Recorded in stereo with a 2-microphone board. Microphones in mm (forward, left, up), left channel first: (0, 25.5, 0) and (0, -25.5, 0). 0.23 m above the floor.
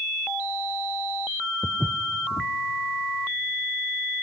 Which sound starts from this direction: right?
Footsteps, at 1.6 s.